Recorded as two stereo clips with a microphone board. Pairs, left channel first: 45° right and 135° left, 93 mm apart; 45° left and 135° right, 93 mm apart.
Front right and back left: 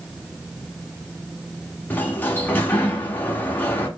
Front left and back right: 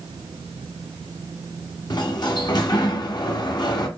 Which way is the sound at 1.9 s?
20° left.